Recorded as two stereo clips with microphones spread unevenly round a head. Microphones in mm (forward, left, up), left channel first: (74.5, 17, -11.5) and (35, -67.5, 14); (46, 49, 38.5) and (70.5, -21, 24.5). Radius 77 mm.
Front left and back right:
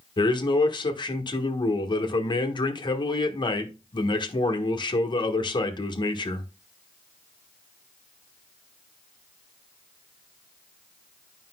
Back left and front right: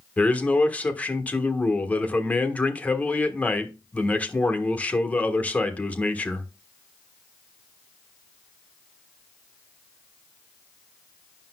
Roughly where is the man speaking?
Ahead left.